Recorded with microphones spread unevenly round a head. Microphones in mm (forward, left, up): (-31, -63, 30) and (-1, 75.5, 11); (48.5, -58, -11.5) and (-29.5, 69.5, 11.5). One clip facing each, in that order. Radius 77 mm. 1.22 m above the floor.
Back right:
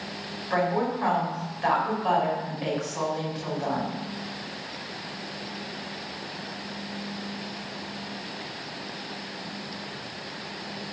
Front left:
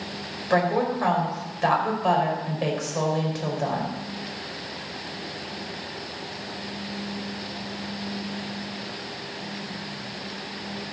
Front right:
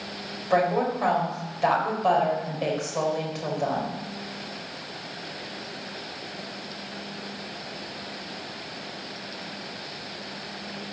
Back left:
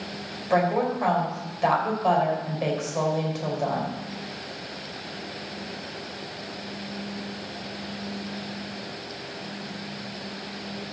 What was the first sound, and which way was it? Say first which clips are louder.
A woman speaking: front left 3 dB, even; 35° left.